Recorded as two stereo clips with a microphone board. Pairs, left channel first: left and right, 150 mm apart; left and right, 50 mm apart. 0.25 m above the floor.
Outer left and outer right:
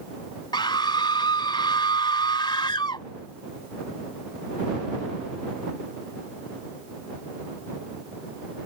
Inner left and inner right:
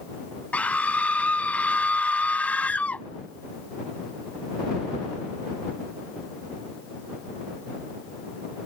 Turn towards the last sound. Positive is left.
turn(degrees=30)  # may be behind; listen again after turning